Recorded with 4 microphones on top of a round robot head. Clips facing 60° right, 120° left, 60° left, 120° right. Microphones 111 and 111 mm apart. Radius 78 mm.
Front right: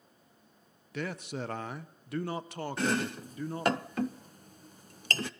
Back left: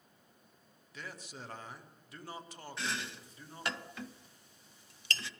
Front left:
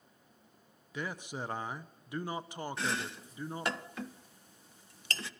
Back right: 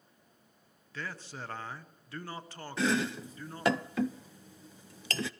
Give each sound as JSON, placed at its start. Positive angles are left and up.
{"t": 0.9, "sound": "a man speaking", "azimuth_deg": -20, "distance_m": 0.8}
{"t": 2.8, "sound": "chopping", "azimuth_deg": -110, "distance_m": 0.6}